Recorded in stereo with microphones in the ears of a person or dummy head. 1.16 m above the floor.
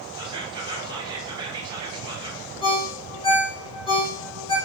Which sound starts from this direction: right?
Whispering, at 0.2 s.